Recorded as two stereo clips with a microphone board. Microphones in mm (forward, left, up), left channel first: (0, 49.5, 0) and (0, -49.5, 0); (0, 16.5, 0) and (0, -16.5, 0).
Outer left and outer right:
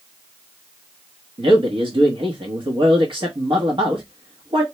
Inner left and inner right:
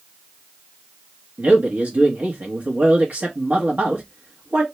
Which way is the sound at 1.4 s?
60° right (ahead or behind).